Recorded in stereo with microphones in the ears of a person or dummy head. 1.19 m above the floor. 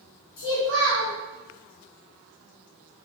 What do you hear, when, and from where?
0.4 s a child speaking: 40° left (ahead or behind), 1.4 m